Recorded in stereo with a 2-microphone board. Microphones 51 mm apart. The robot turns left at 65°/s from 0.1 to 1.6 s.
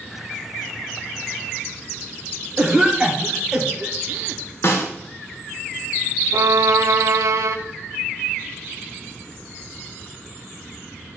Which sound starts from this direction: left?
A snare drum, at 4.6 s.